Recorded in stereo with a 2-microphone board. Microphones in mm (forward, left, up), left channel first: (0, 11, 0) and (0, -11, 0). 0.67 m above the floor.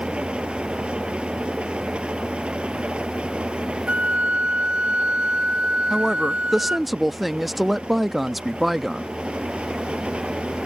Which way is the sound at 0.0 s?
60° right (ahead or behind).